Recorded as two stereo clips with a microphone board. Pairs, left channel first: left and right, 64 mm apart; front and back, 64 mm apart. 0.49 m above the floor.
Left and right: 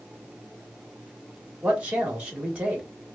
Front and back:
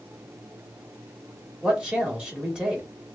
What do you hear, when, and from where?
1.6 s a man speaking: 130° right, 1.3 m